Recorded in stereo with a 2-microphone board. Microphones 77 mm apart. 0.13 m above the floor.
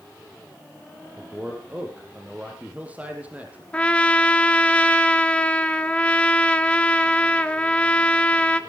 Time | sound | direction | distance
1.2 | a man speaking | 20° right (ahead or behind) | 3.5 m
3.7 | a trumpet | 15° left (ahead or behind) | 0.9 m